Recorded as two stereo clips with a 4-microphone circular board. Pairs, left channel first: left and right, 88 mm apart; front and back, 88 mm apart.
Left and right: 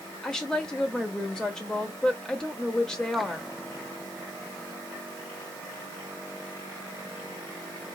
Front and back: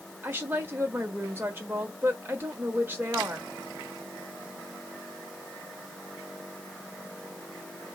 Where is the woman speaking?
160° left, 1.1 m.